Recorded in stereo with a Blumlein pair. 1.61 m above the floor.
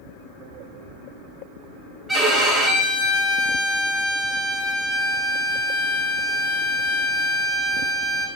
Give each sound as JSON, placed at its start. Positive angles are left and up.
{"t": 2.1, "sound": "a violin", "azimuth_deg": -10, "distance_m": 0.7}